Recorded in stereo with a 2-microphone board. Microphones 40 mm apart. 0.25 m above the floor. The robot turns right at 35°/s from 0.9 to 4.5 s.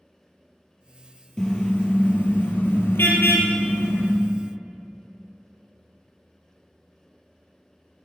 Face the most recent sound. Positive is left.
turn(degrees=125)